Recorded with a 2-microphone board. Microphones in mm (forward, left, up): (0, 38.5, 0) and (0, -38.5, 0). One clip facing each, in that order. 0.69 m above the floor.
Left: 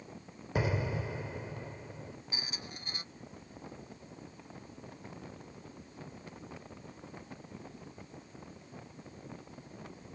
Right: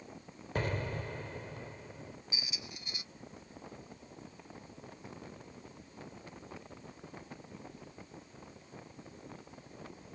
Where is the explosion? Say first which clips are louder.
Left 3 dB; 10° left (ahead or behind).